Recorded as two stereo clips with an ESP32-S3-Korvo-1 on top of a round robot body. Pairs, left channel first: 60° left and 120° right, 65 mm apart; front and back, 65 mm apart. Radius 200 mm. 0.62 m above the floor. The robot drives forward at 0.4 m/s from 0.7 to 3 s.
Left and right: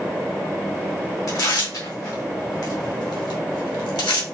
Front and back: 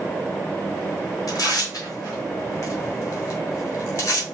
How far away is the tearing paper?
About 1.6 m.